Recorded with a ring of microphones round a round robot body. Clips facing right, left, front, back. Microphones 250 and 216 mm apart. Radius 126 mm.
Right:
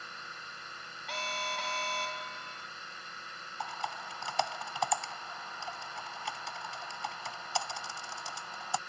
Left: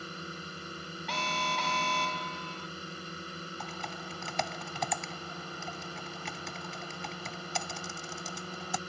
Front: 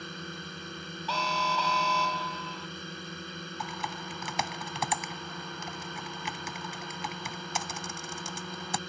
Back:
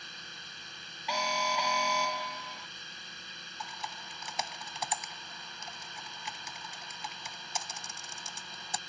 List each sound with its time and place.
0.0 s a drone: 35° left
1.1 s an alarm: 105° left
3.6 s typing on a keyboard: 20° left